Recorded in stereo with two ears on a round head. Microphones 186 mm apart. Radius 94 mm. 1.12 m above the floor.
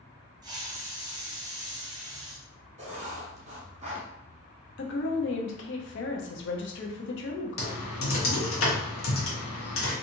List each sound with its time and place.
0.4 s a hiss: 20° right (ahead or behind), 0.8 m
2.8 s writing: 35° right (ahead or behind), 0.8 m
4.8 s a woman speaking: 60° left (ahead or behind), 0.6 m
7.6 s typing on a keyboard: 75° left (ahead or behind), 1.1 m